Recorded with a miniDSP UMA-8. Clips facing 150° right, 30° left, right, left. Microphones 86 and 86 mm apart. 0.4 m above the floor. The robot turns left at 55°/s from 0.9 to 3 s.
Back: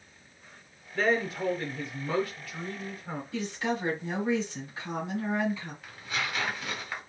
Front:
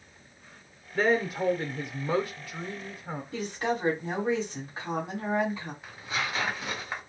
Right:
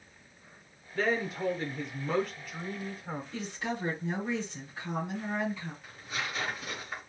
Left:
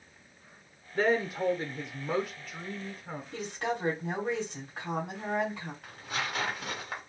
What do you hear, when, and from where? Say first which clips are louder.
0.9 s a woman speaking: front 2 dB, left 3 dB; 85° left, 0.8 m; by 3.2 s 30° right, 0.8 m
3.3 s a woman speaking: front 1 dB, left 4 dB; 70° left, 2.5 m
5.8 s tearing paper: front 1 dB, left 3 dB; 95° left, 1.5 m